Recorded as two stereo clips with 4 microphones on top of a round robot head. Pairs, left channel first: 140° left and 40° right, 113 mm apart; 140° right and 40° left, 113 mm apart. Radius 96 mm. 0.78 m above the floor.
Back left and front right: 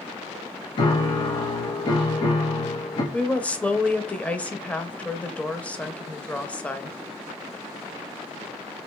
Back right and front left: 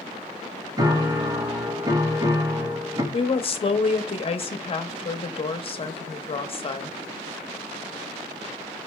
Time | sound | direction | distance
0.8 | a piano | 95° left | 1.0 m
3.1 | a woman speaking | 145° right | 0.8 m